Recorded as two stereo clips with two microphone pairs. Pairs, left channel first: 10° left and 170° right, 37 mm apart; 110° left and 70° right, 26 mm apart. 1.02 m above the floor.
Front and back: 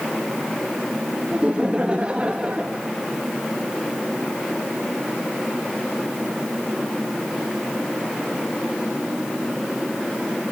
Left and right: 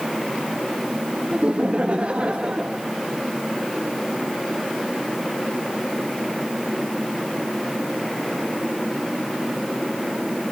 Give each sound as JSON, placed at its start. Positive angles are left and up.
{"t": 1.3, "sound": "laughter", "azimuth_deg": -105, "distance_m": 1.3}